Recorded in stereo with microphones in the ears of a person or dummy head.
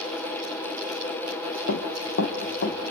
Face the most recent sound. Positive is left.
turn(degrees=60)  # may be behind; listen again after turning